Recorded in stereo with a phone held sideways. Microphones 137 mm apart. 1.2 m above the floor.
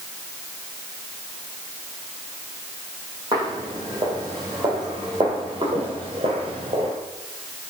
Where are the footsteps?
30° right (ahead or behind), 3 m; by 6.9 s 45° right (ahead or behind), 1.5 m.